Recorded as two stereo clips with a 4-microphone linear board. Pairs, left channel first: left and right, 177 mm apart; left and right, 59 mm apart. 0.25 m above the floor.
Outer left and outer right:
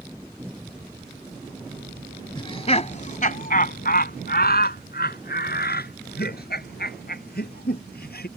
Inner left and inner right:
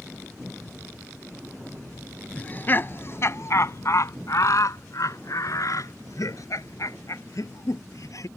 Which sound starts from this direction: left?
Laughter, at 2.4 s.